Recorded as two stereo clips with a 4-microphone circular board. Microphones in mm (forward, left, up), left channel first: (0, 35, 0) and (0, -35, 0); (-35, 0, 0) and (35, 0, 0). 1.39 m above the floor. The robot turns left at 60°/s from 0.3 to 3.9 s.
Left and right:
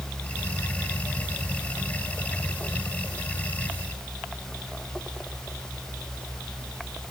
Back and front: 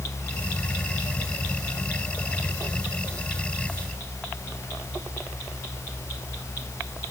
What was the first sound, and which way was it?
Only background noise.